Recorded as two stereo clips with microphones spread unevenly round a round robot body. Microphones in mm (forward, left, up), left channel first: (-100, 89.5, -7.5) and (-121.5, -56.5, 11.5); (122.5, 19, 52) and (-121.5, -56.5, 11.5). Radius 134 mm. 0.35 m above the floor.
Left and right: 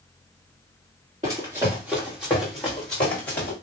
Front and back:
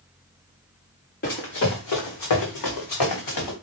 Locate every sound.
1.2 s running footsteps: 35° right, 1.5 m; by 3.5 s 35° left, 2 m